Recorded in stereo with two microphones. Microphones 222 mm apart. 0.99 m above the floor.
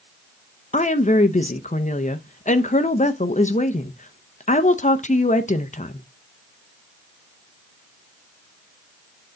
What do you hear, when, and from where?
0.7 s a woman speaking: 35° left (ahead or behind), 0.6 m